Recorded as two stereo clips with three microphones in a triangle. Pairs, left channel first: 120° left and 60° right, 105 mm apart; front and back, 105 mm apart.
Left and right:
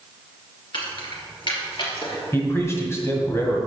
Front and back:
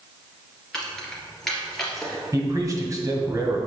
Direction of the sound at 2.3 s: 160° left.